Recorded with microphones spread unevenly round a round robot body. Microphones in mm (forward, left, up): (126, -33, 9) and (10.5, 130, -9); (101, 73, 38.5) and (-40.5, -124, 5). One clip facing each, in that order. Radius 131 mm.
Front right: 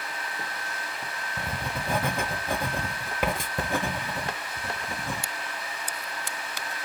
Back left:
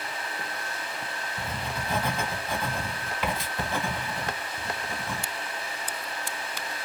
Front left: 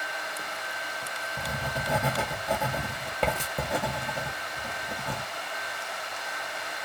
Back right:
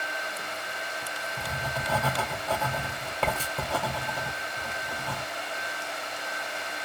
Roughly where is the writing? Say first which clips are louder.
Front right 1 dB, front left 2 dB; ahead right.